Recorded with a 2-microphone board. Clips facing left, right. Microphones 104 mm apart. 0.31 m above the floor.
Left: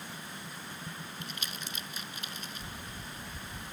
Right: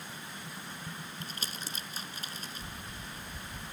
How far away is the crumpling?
About 1.4 m.